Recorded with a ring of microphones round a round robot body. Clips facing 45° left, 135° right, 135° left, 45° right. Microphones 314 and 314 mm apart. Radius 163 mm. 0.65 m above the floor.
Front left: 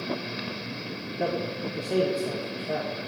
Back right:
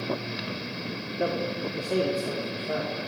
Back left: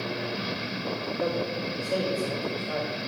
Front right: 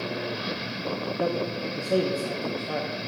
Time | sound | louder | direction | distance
1.2 | a man speaking | back right 1 dB, front right 1 dB | 50° right | 1.2 m